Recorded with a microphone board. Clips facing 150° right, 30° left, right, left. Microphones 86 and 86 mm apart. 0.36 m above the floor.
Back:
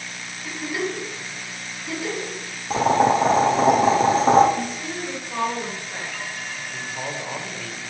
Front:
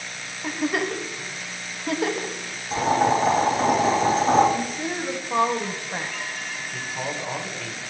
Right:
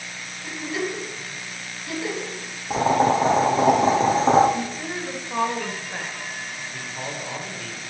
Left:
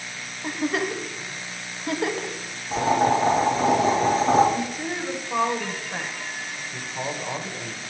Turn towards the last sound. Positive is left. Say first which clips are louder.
# front 1 dB, left 3 dB
turn(degrees=110)